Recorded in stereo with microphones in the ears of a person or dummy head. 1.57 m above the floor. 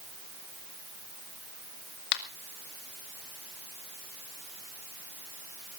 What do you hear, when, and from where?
2.1 s a finger snap: 60° left (ahead or behind), 2.5 m